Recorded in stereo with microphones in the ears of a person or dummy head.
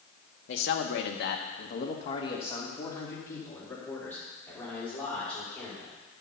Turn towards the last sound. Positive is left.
turn(degrees=5)  # may be behind; listen again after turning